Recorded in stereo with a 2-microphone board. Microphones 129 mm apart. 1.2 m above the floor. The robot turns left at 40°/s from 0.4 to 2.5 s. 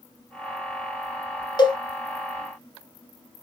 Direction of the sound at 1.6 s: 35° left (ahead or behind).